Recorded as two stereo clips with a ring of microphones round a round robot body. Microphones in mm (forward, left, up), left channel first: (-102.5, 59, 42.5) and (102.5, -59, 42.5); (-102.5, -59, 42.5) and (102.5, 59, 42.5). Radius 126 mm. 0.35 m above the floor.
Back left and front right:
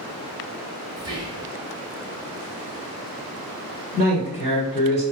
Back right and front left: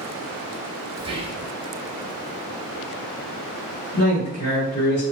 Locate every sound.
1.0 s whispering: 10° left, 1.1 m
3.9 s a man speaking: 165° right, 1.4 m